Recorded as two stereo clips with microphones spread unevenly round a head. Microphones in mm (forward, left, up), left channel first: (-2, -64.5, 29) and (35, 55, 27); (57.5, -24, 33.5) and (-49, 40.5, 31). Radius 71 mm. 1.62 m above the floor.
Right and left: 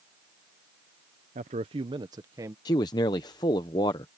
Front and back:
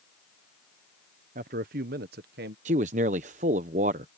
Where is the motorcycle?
No motorcycle in this recording.